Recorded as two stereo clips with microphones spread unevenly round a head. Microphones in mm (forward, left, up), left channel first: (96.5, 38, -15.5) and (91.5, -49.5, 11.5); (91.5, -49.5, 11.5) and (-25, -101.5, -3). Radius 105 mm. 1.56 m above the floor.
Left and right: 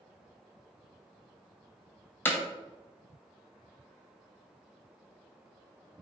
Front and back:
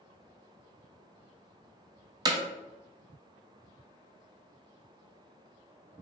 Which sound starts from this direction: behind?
Hammering, at 2.2 s.